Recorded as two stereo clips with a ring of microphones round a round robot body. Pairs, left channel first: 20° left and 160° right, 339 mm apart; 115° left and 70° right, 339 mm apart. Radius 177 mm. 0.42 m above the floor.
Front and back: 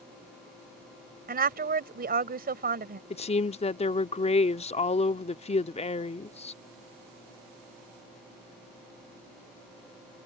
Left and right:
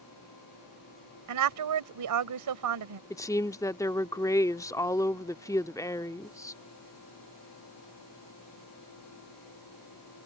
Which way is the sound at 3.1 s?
50° left.